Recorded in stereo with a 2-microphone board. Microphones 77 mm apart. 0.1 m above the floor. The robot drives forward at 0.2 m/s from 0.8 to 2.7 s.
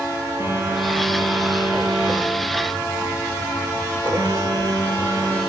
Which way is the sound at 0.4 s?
40° right (ahead or behind).